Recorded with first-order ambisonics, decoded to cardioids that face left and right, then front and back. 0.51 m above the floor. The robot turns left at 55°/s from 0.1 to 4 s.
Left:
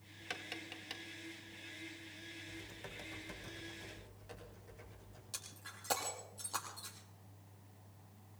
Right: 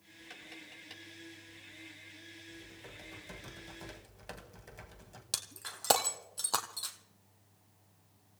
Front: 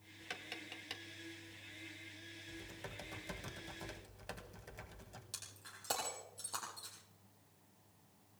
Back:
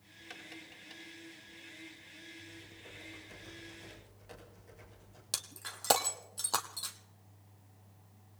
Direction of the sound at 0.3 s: 65° left.